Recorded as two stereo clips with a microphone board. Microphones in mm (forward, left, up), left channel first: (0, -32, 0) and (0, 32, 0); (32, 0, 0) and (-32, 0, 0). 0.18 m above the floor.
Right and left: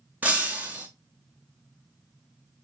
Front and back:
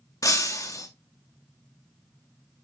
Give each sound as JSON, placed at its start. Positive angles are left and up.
{"t": 0.2, "sound": "breaking glass", "azimuth_deg": 25, "distance_m": 1.3}